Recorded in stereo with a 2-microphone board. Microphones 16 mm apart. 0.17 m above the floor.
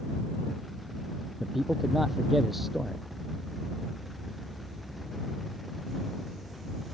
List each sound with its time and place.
1.4 s a man speaking: 10° right (ahead or behind)